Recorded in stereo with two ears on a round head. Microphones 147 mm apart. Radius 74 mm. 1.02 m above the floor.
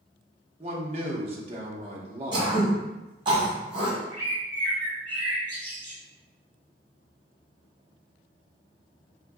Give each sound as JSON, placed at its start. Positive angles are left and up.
{"t": 0.6, "sound": "a man speaking", "side_deg": -40, "distance_m": 0.7}
{"t": 2.3, "sound": "throat clearing", "side_deg": -30, "distance_m": 1.5}
{"t": 4.1, "sound": "a bird", "side_deg": 10, "distance_m": 1.9}